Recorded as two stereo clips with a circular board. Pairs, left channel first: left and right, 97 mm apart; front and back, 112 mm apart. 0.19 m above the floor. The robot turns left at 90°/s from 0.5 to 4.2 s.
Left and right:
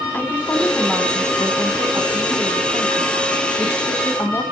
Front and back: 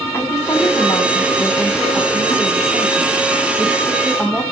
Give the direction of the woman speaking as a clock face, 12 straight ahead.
10 o'clock.